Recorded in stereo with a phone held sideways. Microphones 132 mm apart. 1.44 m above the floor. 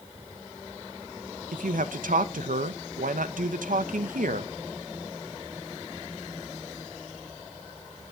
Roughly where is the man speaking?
Right.